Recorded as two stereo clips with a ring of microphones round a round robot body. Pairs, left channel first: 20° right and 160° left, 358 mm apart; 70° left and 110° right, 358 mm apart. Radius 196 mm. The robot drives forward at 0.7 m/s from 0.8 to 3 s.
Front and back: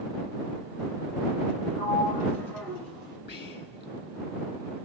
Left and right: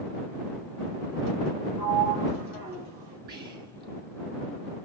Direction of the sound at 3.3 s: 65° right.